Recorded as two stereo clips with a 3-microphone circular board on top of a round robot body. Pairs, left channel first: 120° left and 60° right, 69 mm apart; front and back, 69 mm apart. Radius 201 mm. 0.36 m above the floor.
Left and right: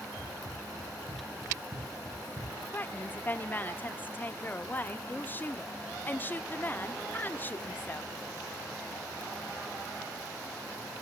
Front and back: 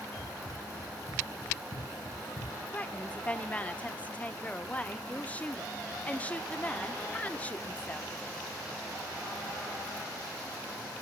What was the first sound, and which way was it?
Running footsteps, 35° right.